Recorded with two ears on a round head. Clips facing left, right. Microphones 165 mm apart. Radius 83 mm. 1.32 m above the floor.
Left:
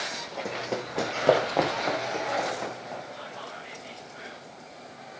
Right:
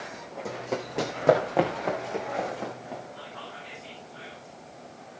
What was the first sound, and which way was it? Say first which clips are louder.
Running footsteps: right 1 dB; 10° left (ahead or behind).